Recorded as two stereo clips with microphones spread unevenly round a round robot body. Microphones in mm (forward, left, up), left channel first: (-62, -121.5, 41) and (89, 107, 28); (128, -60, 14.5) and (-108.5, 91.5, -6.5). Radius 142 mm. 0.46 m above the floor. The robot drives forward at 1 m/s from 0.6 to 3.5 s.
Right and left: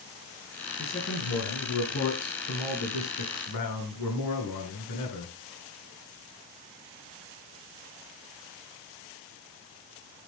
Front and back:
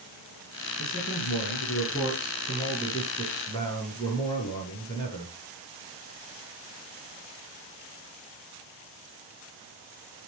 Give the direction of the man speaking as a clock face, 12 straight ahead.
3 o'clock.